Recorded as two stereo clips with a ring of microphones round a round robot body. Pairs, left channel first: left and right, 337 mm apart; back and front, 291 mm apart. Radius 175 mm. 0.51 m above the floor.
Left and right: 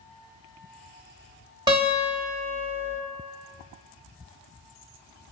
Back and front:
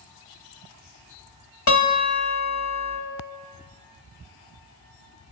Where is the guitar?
165° right, 1.7 m.